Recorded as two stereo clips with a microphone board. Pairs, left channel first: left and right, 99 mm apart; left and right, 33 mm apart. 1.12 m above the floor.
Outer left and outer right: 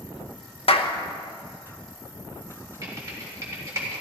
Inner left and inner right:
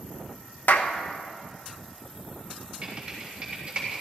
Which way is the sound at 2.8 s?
30° right (ahead or behind).